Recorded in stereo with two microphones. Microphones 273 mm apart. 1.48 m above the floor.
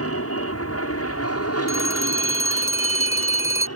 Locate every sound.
0.0 s an aircraft: 55° left (ahead or behind); by 3.8 s 65° left (ahead or behind)
1.7 s a phone ringing: 10° right (ahead or behind)